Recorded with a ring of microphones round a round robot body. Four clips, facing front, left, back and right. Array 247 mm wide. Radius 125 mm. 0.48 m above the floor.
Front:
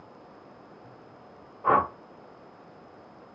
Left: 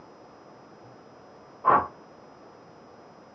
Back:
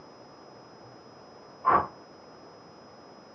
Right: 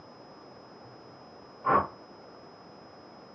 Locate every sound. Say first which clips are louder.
1.6 s a whoosh: left 4 dB, front 1 dB; 50° left, 2.5 m